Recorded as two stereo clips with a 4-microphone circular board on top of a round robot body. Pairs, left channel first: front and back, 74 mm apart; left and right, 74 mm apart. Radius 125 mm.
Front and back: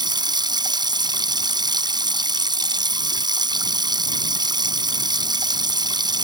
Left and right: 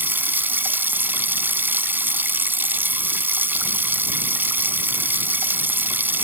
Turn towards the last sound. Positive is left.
turn(degrees=-155)